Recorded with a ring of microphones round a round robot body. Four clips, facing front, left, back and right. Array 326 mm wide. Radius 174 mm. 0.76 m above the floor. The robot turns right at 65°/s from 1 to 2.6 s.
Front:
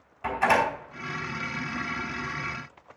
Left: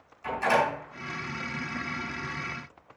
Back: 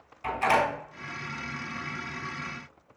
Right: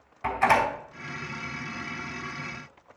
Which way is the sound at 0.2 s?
55° right.